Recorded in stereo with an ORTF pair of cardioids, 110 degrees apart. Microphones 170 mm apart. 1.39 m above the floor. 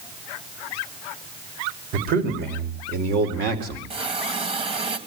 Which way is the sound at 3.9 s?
35° right.